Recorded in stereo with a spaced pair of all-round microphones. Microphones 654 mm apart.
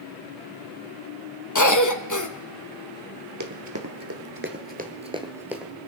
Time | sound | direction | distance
1.6 | a cough | 30° left (ahead or behind) | 1.2 m
3.4 | running footsteps | 30° right (ahead or behind) | 1.4 m